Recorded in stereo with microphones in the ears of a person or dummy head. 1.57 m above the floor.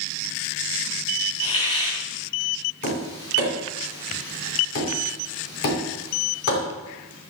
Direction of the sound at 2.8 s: 55° left (ahead or behind).